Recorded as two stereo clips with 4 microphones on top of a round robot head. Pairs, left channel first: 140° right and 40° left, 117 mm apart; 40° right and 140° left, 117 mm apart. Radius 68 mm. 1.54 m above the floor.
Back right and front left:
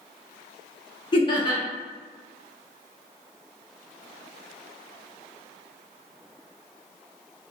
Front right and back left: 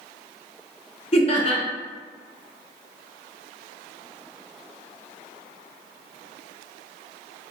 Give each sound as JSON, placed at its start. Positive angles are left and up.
{"t": 1.1, "sound": "laughter", "azimuth_deg": -85, "distance_m": 0.8}